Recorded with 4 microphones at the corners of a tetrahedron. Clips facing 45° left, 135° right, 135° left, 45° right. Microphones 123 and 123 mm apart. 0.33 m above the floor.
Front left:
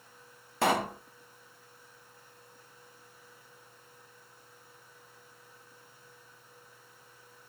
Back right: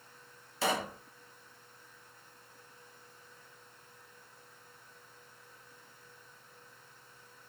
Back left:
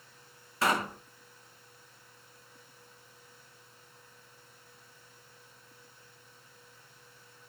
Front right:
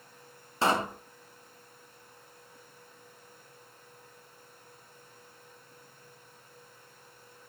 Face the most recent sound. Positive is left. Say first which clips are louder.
# front left 5 dB, front right 2 dB
turn(degrees=15)